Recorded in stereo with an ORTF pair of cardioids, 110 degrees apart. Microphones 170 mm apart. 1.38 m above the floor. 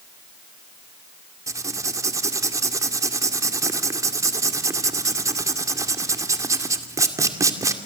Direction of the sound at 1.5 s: 20° right.